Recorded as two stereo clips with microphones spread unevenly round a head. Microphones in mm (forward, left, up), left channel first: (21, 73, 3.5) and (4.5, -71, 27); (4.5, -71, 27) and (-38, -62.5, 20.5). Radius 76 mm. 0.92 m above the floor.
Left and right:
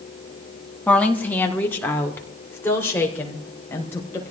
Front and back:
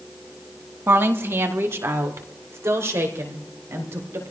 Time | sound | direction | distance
0.9 | a woman speaking | 160° left | 1.3 m